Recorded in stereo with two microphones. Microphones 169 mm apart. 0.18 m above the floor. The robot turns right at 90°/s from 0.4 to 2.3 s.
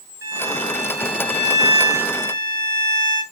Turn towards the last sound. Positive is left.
turn(degrees=10)